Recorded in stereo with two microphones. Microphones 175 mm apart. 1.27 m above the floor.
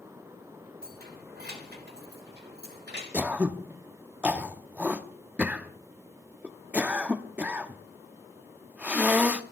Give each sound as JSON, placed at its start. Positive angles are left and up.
{"t": 0.8, "sound": "keys jangling", "side_deg": -65, "distance_m": 3.0}
{"t": 3.1, "sound": "throat clearing", "side_deg": -10, "distance_m": 0.8}